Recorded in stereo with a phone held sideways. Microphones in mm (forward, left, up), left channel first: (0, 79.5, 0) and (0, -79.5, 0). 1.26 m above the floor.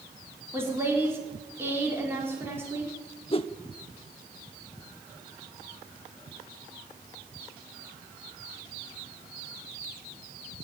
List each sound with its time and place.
0.5 s a woman speaking: 15° right (ahead or behind), 4.5 m
3.3 s a whoosh: 35° left (ahead or behind), 0.5 m